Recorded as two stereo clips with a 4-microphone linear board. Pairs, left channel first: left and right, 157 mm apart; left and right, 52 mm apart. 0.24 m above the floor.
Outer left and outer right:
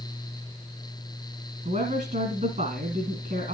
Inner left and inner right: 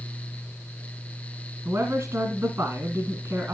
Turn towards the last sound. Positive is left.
turn(degrees=-50)  # may be behind; listen again after turning